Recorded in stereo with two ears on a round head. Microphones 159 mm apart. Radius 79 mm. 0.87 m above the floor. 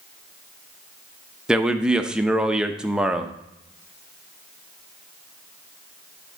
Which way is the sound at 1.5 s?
5° right (ahead or behind).